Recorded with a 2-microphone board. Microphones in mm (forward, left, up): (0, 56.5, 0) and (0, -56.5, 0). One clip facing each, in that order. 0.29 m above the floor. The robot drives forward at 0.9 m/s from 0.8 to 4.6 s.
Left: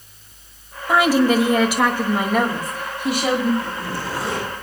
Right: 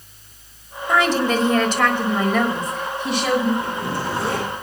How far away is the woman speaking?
About 1.5 m.